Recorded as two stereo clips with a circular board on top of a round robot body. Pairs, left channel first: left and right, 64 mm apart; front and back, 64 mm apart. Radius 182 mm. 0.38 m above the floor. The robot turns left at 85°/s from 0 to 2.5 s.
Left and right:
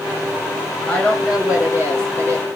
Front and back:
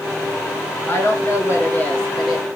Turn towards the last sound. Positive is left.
turn(degrees=-105)